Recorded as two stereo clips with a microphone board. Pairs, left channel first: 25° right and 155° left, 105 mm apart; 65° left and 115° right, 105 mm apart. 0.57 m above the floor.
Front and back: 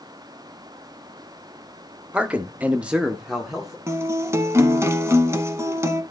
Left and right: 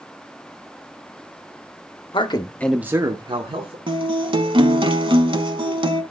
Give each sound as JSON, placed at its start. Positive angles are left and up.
{"t": 2.1, "sound": "a man speaking", "azimuth_deg": 80, "distance_m": 0.9}
{"t": 3.9, "sound": "a guitar", "azimuth_deg": -140, "distance_m": 0.9}